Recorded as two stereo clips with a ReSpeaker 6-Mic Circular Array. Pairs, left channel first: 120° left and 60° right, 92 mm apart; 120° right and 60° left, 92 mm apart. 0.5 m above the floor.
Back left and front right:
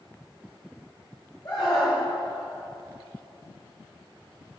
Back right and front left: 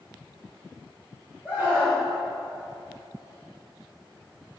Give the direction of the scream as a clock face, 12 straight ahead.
8 o'clock.